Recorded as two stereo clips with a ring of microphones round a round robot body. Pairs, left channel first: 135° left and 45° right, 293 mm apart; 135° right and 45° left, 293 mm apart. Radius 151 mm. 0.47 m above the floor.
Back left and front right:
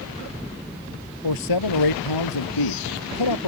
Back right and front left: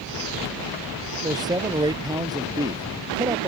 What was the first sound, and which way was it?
A man speaking, 120° left.